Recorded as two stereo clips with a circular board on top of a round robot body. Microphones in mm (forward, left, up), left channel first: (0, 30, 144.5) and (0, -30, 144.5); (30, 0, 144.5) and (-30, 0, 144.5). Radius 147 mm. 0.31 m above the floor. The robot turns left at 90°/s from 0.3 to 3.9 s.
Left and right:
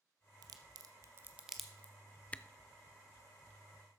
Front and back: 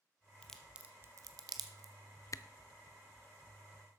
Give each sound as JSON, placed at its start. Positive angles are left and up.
{"t": 0.4, "sound": "a crack", "azimuth_deg": -75, "distance_m": 0.6}
{"t": 2.3, "sound": "a camera shutter", "azimuth_deg": 25, "distance_m": 0.5}